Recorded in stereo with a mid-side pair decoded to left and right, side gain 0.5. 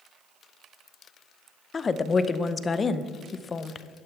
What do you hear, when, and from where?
1.7 s a woman speaking: 35° left, 0.7 m